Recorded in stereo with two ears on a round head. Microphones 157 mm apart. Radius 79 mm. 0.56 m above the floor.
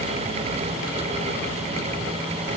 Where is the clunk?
No clunk in this recording.